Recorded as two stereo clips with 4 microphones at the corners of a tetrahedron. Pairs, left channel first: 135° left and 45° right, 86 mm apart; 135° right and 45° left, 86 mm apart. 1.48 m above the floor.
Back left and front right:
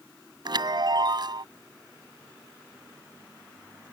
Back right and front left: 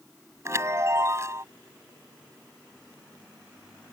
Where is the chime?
10° right.